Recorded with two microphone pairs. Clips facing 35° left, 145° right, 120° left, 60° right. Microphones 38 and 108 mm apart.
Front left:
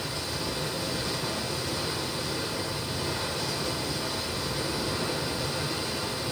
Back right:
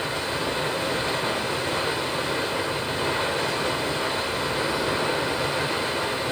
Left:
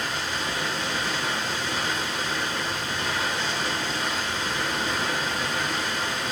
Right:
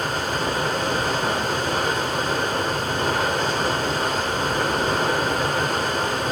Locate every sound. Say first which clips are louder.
0.0 s running water: back right 6 dB, right 6 dB; 100° right, 1.5 m